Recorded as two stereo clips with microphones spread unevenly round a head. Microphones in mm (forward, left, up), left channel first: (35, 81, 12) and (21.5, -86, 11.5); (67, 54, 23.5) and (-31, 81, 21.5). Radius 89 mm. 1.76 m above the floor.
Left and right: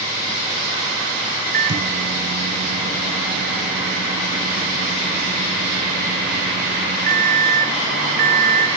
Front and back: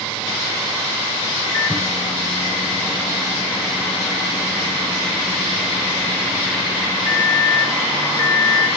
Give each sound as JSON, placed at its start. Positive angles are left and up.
{"t": 1.5, "sound": "a microwave", "azimuth_deg": -85, "distance_m": 0.7}